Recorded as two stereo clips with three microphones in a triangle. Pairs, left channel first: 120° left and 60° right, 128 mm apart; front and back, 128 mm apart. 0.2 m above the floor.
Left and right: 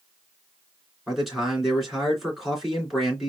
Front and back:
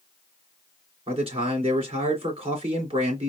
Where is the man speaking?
150° right, 3 m.